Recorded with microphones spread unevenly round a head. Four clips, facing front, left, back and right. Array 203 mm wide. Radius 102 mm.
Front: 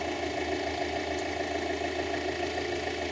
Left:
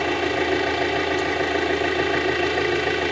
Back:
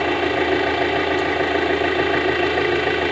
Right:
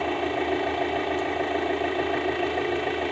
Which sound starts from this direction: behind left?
An engine running, at 0.0 s.